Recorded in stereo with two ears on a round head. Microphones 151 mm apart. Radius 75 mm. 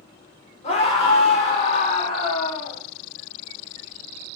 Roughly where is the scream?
Left.